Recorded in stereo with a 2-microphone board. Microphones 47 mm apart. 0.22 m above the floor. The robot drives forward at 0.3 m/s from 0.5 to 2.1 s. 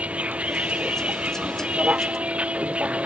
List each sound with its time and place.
0.0 s a vehicle: 30° right (ahead or behind); by 3.1 s 25° right (ahead or behind)